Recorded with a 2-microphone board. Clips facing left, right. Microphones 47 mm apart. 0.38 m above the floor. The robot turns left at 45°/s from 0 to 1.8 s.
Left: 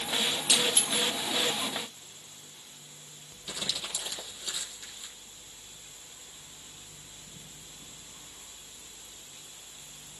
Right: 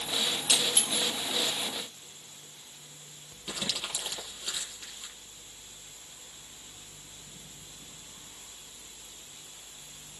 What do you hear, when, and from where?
0.5 s breaking glass: 15° left (ahead or behind), 5 m; by 1.1 s 10° right (ahead or behind), 5 m
3.5 s crumpling: 40° right (ahead or behind), 7.5 m